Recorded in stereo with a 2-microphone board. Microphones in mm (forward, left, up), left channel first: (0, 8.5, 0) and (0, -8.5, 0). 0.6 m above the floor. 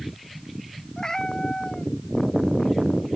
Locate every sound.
1.0 s a cat meowing: 35° left (ahead or behind)